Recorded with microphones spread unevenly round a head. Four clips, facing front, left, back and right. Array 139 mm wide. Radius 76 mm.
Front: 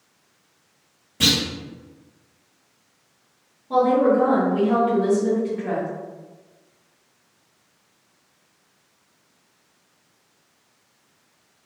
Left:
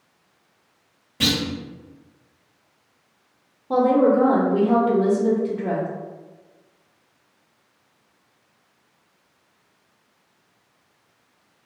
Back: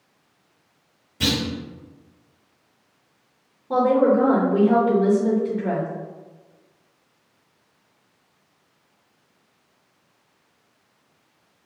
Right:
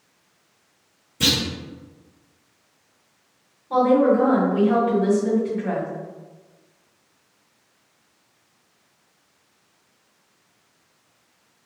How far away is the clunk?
About 1.9 m.